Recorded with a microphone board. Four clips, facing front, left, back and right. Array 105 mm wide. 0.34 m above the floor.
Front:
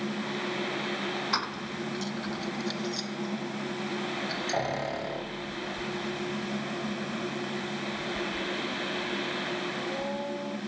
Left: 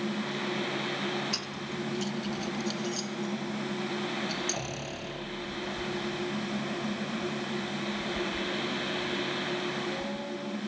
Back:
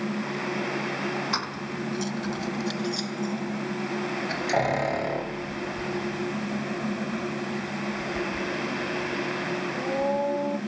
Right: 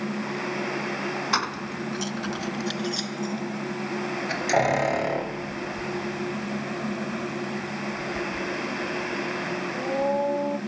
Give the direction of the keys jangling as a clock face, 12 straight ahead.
3 o'clock.